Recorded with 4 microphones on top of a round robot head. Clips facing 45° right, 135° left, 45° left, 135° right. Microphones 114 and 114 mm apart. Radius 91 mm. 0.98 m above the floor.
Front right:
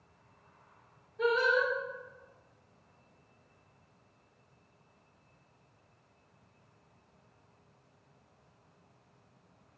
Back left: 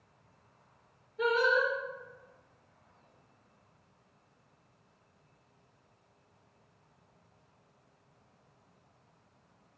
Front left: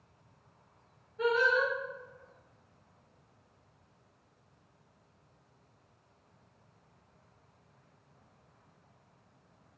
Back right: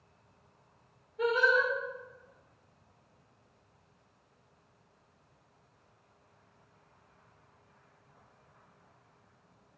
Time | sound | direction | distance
1.2 | singing | 155° left | 1.4 m